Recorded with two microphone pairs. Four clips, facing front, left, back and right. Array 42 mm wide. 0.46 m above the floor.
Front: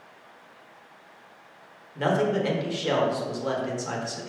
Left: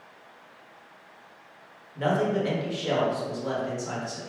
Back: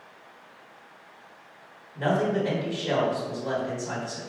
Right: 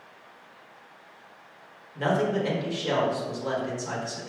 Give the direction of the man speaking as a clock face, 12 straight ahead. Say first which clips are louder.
Even, front 1 dB; 12 o'clock.